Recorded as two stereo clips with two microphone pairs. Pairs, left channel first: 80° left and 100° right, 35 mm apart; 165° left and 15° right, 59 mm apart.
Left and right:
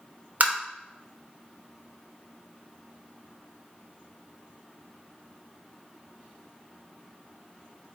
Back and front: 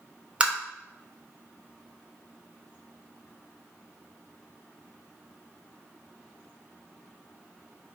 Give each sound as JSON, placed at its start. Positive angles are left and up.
{"t": 0.4, "sound": "tapping", "azimuth_deg": -90, "distance_m": 0.7}